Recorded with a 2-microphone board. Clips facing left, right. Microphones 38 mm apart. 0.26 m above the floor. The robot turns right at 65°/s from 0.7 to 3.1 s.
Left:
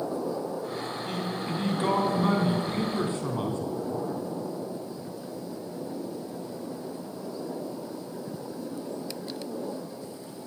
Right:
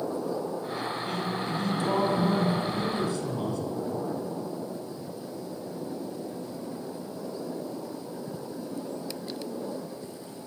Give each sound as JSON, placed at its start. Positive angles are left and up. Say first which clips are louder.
{"t": 1.1, "sound": "a man speaking", "louder": "right 1 dB", "azimuth_deg": 0, "distance_m": 2.5}